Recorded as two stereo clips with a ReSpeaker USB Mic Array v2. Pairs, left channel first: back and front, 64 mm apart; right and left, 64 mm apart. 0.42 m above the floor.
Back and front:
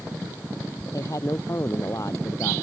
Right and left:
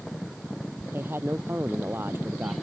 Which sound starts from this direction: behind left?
A man speaking, at 0.9 s.